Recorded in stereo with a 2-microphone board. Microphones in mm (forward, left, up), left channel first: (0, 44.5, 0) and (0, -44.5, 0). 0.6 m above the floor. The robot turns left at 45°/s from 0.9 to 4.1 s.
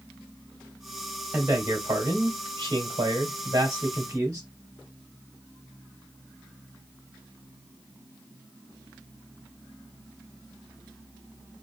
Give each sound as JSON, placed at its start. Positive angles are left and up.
{"t": 1.3, "sound": "a man speaking", "azimuth_deg": -25, "distance_m": 1.4}